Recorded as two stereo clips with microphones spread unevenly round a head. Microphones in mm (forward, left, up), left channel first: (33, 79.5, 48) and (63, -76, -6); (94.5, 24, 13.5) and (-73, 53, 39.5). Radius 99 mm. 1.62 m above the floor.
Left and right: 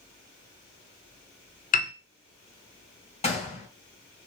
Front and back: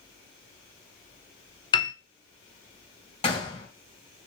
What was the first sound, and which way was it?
A piano, 55° left.